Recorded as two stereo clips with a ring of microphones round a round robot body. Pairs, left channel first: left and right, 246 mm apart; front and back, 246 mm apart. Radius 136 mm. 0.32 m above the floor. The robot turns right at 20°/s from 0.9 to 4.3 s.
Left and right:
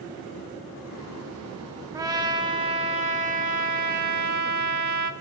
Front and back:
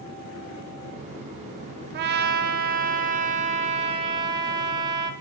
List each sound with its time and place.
1.9 s a trumpet: 160° right, 0.6 m; by 5.1 s 115° right, 0.6 m